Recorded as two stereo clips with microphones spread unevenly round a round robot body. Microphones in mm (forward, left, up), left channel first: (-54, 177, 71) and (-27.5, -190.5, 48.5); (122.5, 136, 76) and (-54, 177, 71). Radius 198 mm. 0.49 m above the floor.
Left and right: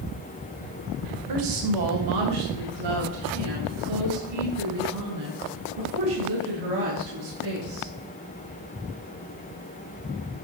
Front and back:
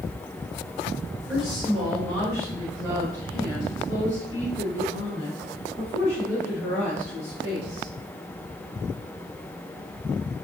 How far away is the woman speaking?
About 1.8 m.